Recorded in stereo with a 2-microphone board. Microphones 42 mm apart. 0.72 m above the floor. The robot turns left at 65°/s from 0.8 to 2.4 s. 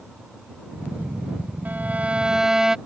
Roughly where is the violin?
Behind right.